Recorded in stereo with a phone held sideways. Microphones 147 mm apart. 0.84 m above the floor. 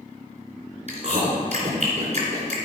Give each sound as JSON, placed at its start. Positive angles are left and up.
{"t": 0.9, "sound": "chewing", "side_deg": -50, "distance_m": 2.5}